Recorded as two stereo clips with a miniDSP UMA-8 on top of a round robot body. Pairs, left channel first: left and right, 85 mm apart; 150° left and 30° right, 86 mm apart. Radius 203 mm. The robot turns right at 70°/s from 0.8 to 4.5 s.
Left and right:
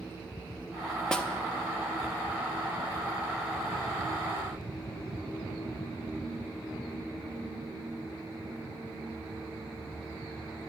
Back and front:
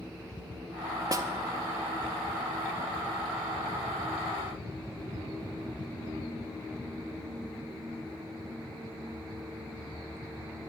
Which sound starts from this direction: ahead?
A snare drum, at 1.1 s.